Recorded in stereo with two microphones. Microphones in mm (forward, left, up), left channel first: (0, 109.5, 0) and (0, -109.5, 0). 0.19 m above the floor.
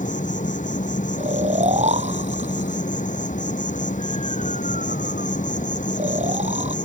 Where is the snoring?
30° right (ahead or behind).